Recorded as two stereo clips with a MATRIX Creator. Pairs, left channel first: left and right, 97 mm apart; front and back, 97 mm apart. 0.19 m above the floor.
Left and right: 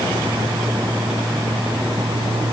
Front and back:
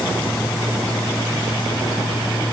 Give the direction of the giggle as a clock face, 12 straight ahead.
I don't hear a giggle.